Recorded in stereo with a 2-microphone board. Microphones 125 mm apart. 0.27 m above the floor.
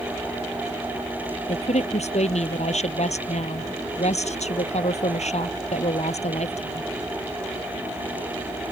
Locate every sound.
1.5 s a woman speaking: 65° left (ahead or behind)